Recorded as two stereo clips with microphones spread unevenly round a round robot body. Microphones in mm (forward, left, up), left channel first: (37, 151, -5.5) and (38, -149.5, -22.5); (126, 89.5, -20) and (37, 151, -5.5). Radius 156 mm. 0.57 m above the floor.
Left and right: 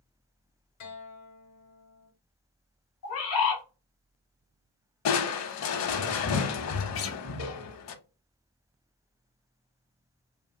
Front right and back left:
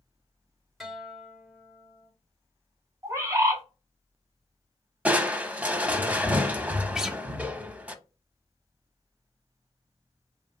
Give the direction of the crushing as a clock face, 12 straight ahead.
10 o'clock.